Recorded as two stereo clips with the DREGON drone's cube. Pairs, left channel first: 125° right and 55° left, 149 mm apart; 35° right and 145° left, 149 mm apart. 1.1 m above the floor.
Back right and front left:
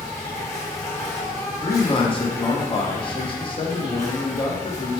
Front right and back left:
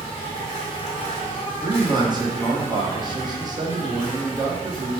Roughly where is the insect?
Ahead right.